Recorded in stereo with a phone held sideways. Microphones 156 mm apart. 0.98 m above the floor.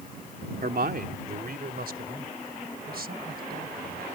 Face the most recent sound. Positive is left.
turn(degrees=-85)